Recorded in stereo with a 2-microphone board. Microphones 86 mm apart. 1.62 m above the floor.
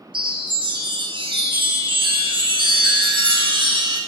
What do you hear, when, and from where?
0.1 s a chime: 70° right (ahead or behind), 0.7 m